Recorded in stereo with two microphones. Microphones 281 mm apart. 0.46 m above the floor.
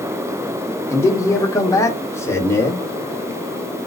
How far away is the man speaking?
About 0.7 m.